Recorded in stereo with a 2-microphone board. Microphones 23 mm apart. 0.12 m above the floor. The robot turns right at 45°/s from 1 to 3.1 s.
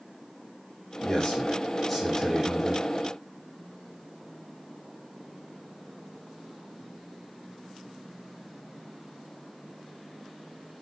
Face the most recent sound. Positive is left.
turn(degrees=-135)